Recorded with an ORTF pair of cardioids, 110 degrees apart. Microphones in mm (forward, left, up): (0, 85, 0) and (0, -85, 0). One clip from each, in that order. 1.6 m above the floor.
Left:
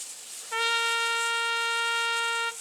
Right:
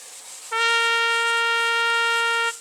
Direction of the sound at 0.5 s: 25° right.